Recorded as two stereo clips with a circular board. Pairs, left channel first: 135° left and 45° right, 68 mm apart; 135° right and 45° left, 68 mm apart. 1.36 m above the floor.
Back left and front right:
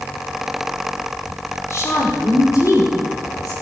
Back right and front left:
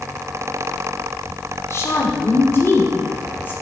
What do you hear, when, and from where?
1.7 s a woman speaking: straight behind, 3 m; by 3.5 s 165° left, 4 m